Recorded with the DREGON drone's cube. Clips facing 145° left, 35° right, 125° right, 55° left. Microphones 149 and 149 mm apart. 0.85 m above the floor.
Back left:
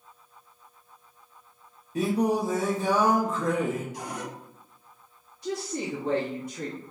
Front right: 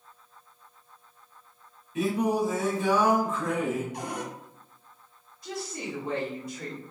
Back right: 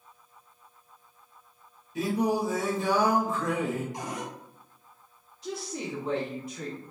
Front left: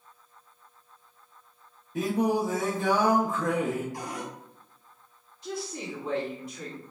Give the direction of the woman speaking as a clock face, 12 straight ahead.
7 o'clock.